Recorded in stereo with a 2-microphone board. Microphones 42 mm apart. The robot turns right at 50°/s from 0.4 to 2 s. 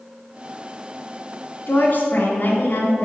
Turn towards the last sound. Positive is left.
turn(degrees=40)  # may be behind; listen again after turning